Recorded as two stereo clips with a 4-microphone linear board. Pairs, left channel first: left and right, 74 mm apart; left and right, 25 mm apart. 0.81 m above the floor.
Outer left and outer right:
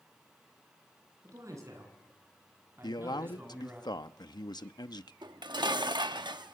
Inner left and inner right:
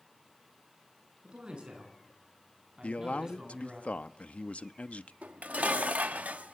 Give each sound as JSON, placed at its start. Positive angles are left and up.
{"t": 1.2, "sound": "a man speaking", "side_deg": -45, "distance_m": 8.0}
{"t": 2.8, "sound": "a man speaking", "side_deg": 60, "distance_m": 0.9}
{"t": 5.2, "sound": "dishes clattering", "side_deg": -70, "distance_m": 0.8}